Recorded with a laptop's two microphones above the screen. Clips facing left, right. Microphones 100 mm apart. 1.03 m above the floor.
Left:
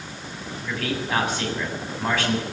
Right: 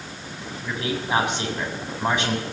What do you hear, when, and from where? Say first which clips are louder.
0.6 s a man speaking: right 1 dB; 15° right (ahead or behind), 6 m